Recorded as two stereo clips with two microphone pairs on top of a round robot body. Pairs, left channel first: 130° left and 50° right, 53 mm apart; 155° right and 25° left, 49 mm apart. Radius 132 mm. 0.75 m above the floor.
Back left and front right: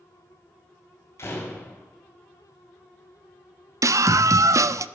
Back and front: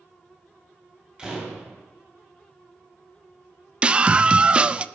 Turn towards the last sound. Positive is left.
turn(degrees=-45)